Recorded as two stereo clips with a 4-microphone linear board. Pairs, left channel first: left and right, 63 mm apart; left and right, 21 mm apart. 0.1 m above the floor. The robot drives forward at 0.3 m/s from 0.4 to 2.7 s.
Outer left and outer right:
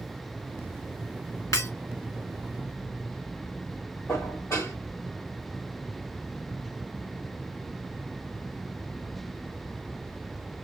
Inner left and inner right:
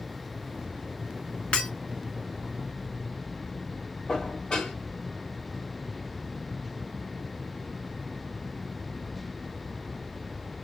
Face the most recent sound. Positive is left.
turn(degrees=55)  # may be behind; listen again after turning